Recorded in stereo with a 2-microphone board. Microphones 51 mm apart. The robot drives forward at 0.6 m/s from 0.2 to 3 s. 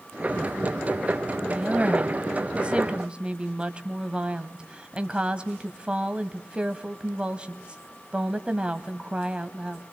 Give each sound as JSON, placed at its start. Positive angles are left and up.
{"t": 1.5, "sound": "a woman speaking", "side_deg": -25, "distance_m": 1.1}